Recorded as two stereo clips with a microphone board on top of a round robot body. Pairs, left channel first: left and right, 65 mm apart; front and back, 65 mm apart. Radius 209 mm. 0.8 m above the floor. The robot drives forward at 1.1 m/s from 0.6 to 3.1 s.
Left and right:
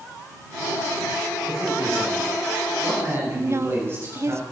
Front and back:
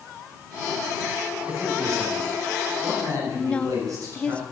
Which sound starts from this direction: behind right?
A man speaking, at 1.4 s.